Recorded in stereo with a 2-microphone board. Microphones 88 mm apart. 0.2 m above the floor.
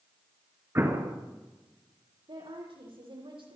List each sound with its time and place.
0.8 s an explosion: 30° right (ahead or behind), 2.5 m
2.3 s a woman speaking: 75° right (ahead or behind), 9.5 m